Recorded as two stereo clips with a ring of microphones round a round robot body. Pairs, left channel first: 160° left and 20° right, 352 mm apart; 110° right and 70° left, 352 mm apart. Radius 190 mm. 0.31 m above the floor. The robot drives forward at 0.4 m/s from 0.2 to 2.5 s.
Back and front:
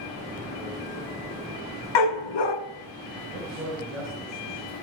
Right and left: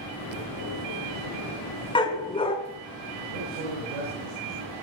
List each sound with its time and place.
1.9 s a dog barking: 170° left, 1.3 m
3.3 s a man speaking: 70° left, 5 m